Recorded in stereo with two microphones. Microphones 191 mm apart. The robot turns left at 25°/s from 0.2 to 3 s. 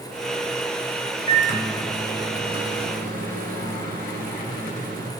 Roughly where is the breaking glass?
I don't hear breaking glass.